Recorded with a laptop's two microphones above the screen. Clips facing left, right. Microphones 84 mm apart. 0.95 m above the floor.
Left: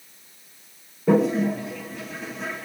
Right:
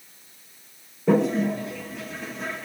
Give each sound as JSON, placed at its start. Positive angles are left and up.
{"t": 1.1, "sound": "a toilet flushing", "side_deg": 0, "distance_m": 1.4}